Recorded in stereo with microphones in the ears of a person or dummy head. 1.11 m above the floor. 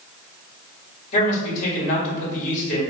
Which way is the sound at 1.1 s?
40° left (ahead or behind).